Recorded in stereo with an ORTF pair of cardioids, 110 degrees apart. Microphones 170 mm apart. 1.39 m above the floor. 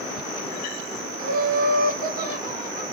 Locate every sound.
1.2 s laughter: 55° right, 1.3 m